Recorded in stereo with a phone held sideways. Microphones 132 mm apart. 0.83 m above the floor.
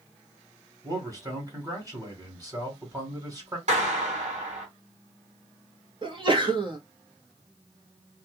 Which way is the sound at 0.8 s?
25° right (ahead or behind).